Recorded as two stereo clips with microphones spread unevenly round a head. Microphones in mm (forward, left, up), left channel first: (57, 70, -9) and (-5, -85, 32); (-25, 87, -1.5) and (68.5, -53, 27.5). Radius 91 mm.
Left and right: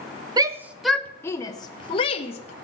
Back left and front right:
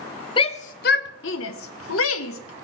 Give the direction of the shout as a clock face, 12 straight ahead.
6 o'clock.